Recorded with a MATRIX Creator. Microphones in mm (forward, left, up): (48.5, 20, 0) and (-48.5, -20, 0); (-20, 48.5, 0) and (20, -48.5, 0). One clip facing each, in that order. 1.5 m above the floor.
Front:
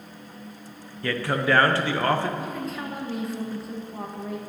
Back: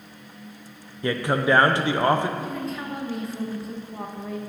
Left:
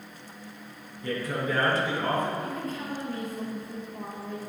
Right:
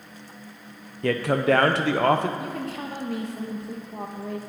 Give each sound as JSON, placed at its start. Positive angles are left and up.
{"t": 1.0, "sound": "a man speaking", "azimuth_deg": -85, "distance_m": 0.6}
{"t": 2.4, "sound": "a woman speaking", "azimuth_deg": -65, "distance_m": 1.1}